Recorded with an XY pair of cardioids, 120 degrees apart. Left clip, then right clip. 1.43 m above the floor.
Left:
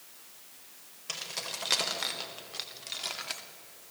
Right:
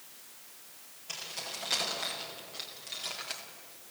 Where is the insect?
I don't hear an insect.